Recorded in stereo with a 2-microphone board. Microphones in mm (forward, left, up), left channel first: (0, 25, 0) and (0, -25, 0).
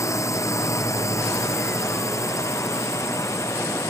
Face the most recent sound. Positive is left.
turn(degrees=90)